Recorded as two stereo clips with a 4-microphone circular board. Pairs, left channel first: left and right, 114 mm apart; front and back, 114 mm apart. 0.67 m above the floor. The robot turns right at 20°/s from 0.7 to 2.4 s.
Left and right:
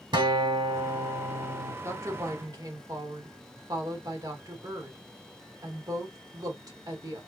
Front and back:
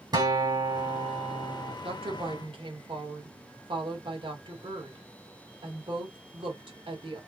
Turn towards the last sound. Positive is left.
turn(degrees=-145)